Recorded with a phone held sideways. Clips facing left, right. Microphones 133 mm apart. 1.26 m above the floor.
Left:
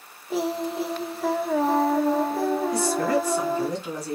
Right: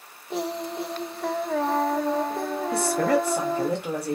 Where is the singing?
5° left (ahead or behind), 0.7 m.